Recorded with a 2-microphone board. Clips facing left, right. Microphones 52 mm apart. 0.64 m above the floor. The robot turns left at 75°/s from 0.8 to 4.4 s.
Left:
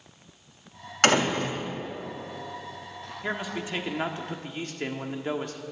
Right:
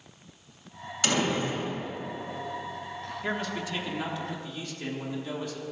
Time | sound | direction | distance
1.0 | a door slam | 115° left | 2.5 m
3.2 | a man speaking | 175° left | 1.3 m